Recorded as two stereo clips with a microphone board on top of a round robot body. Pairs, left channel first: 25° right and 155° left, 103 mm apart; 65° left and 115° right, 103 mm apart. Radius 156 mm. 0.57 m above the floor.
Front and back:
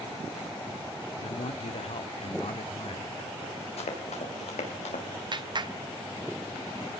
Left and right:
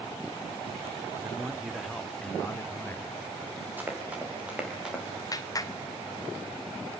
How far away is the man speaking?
About 1.7 m.